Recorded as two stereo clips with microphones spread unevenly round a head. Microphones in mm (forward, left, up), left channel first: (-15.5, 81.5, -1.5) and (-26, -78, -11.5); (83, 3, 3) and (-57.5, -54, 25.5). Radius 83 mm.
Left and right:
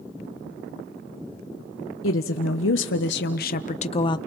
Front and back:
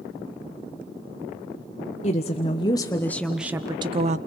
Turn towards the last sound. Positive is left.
turn(degrees=150)